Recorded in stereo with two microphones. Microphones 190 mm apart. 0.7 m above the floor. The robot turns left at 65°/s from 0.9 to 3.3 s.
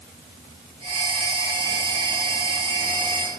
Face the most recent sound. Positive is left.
No sound to turn to.